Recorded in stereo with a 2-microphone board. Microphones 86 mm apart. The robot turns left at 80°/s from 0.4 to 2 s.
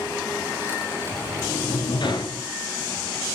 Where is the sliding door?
140° left, 3 m; by 2.5 s 70° left, 3 m.